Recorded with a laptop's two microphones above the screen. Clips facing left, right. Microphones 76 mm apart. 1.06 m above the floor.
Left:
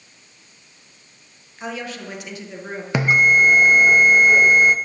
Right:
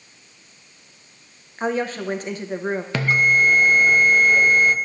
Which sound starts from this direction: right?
A woman speaking, at 1.6 s.